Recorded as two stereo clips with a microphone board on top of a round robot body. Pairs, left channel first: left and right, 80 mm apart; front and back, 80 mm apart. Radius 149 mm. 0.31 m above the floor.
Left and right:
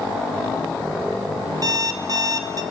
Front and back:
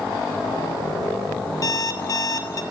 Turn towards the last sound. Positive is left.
turn(degrees=-45)